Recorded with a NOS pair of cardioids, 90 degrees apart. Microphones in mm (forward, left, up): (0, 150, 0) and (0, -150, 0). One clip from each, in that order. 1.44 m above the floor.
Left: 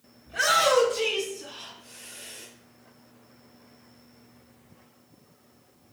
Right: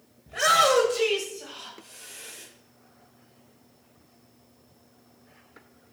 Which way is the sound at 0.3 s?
20° right.